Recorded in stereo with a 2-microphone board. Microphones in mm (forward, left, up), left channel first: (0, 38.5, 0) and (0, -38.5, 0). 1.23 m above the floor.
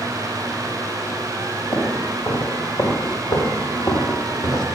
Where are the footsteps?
55° left (ahead or behind), 3.5 m; by 4.7 s 60° left (ahead or behind), 2.5 m.